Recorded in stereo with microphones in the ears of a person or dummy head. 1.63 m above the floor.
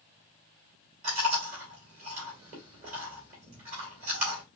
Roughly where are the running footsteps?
I don't hear running footsteps.